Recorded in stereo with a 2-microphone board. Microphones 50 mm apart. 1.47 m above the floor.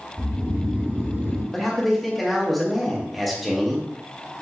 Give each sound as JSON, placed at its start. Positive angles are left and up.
{"t": 0.2, "sound": "snoring", "side_deg": -35, "distance_m": 1.8}
{"t": 1.5, "sound": "a man speaking", "side_deg": 0, "distance_m": 0.9}